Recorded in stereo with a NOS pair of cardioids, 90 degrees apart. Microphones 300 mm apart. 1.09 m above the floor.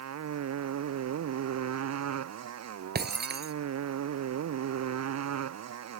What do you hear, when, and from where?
0.0 s a motorcycle: 60° right
3.0 s breaking glass: 35° right